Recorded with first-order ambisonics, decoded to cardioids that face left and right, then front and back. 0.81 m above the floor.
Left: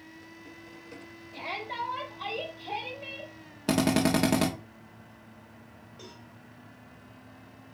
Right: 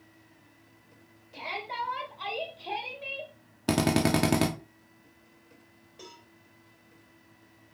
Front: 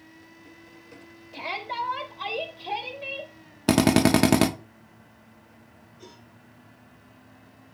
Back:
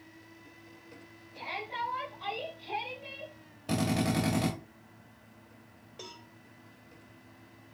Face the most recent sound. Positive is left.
turn(degrees=-170)